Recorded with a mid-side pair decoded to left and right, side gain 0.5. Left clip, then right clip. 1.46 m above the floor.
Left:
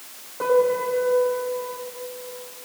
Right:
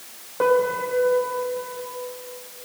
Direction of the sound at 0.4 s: 50° right.